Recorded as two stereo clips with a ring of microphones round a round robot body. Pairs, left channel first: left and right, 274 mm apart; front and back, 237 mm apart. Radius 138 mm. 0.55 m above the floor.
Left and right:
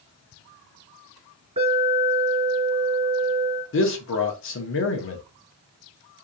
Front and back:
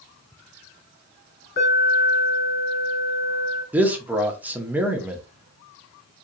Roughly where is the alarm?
Ahead right.